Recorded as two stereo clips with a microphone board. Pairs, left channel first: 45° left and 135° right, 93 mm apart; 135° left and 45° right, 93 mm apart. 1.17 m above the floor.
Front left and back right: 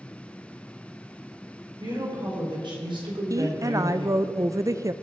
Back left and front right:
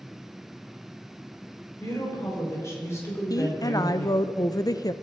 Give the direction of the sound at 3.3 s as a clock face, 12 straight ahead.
6 o'clock.